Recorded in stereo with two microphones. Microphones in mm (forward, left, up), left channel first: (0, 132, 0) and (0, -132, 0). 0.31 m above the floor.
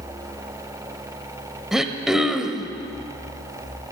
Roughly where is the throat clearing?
Centre.